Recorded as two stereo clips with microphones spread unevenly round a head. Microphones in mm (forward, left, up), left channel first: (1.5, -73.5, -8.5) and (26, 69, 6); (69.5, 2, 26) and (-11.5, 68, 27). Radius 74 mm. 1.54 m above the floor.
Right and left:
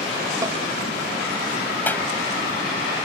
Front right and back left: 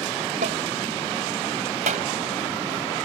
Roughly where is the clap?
Behind.